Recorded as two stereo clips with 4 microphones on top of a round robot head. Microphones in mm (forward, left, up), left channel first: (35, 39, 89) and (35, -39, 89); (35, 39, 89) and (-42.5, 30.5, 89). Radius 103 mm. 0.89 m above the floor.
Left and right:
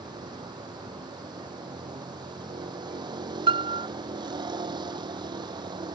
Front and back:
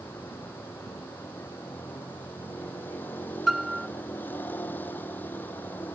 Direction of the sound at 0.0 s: 65° right.